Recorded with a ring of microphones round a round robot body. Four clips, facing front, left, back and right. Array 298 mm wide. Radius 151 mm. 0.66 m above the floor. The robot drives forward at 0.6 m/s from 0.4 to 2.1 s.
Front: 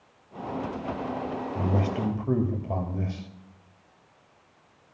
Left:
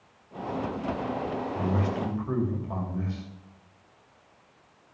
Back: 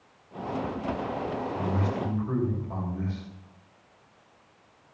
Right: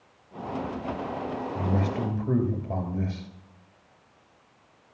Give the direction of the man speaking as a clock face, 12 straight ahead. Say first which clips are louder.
Right 1 dB, front 4 dB; 1 o'clock.